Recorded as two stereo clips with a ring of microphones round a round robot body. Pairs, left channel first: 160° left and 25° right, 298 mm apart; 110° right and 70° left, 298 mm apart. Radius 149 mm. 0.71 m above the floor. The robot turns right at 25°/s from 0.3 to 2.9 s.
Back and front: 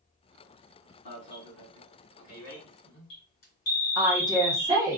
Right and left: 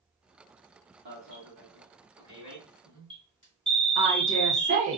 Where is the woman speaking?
40° left, 1.0 m.